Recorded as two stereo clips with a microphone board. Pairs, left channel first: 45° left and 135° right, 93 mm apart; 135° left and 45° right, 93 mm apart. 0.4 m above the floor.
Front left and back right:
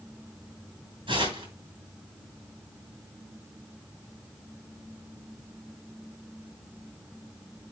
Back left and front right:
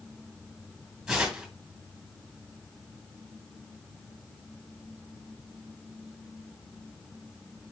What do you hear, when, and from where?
1.1 s tearing paper: 125° right, 3 m